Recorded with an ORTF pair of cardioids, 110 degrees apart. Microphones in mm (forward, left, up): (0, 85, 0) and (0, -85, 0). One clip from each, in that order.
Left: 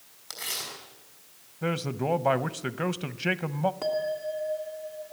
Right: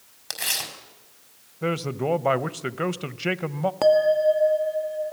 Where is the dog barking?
I don't hear a dog barking.